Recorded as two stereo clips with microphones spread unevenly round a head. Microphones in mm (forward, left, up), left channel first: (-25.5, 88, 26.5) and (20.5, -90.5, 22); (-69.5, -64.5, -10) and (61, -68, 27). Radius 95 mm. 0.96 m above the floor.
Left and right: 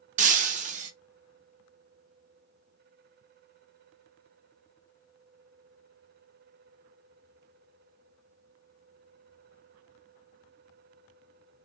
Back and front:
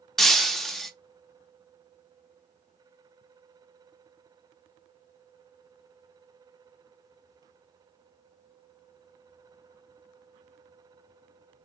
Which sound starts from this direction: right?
Breaking glass, at 0.2 s.